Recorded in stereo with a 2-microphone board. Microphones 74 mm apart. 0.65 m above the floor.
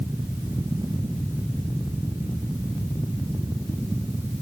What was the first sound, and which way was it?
Only background noise.